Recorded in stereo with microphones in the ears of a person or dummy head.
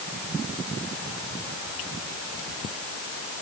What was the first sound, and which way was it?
Only background noise.